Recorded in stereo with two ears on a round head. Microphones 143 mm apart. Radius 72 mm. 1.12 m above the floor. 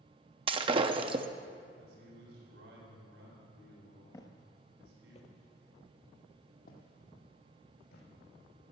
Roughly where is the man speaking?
Right.